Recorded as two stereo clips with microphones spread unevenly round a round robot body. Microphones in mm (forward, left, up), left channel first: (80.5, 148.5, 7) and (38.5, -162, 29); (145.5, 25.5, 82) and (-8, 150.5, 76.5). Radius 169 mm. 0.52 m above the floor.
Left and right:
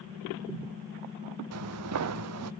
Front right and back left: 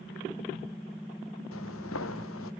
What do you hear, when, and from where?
1.5 s footsteps: 70° right, 1.0 m